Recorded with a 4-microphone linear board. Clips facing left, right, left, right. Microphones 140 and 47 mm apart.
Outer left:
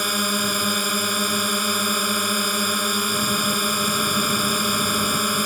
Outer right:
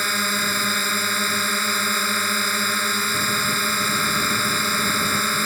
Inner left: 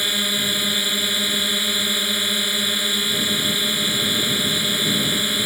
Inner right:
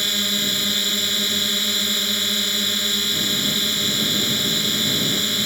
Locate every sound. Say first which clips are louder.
0.0 s a drone: outer left 2 dB, inner left 1 dB; 15° left (ahead or behind)